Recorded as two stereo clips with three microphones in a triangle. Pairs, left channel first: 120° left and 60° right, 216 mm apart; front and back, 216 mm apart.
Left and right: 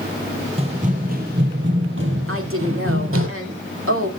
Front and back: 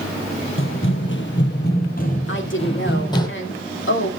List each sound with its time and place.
0.6 s running footsteps: straight ahead, 2 m; by 3.3 s 75° right, 3 m
2.3 s a woman speaking: 35° right, 2.5 m